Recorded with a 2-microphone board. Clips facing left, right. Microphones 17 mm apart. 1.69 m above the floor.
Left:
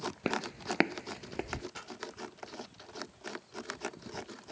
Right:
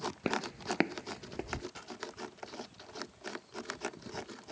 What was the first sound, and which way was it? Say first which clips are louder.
Footsteps: even; 10° left (ahead or behind).